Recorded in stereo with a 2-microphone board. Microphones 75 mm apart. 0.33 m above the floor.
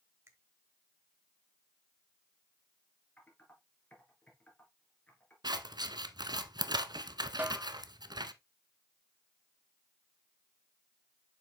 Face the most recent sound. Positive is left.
turn(degrees=-25)  # may be behind; listen again after turning